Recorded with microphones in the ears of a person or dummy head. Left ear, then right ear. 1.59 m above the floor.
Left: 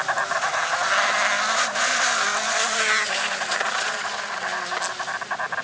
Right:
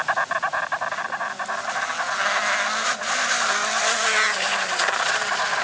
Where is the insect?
5° right (ahead or behind).